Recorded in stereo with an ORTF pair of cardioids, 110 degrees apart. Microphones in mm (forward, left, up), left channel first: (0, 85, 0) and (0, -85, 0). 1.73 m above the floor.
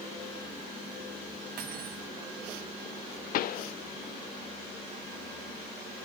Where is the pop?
60° left, 0.5 m.